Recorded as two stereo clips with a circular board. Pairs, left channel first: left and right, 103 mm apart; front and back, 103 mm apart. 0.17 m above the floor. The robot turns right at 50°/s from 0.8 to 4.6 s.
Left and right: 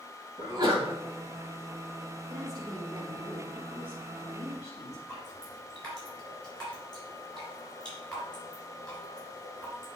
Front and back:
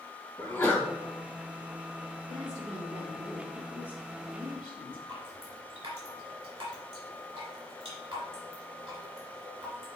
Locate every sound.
0.4 s a sneeze: 45° right, 1.6 m
2.3 s a woman speaking: 150° right, 2 m; by 5.0 s 35° right, 2 m
5.1 s dripping: 170° left, 3 m